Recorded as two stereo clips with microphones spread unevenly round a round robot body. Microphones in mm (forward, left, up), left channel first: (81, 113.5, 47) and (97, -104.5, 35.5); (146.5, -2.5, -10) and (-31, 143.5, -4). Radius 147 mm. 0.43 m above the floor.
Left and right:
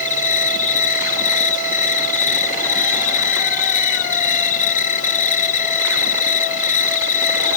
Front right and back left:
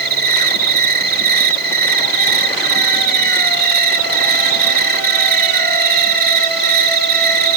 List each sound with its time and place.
0.0 s an insect: 130° left